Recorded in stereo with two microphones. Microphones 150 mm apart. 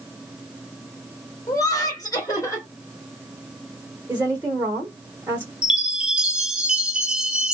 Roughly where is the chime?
Centre.